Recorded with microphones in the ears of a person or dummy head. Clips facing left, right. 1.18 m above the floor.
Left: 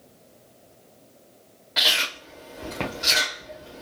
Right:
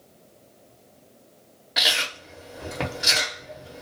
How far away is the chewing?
About 1.0 m.